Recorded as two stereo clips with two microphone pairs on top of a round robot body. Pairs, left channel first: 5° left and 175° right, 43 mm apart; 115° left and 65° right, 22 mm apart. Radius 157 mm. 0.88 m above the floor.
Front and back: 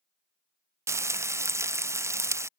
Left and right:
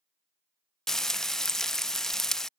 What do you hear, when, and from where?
0.9 s frying: 175° right